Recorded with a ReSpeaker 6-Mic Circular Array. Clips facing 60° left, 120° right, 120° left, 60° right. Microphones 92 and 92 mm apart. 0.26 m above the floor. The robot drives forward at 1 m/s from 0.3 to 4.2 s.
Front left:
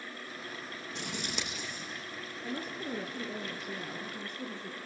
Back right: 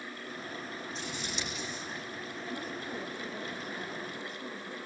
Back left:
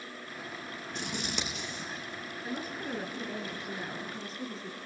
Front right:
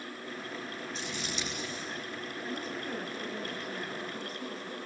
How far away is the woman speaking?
About 4 m.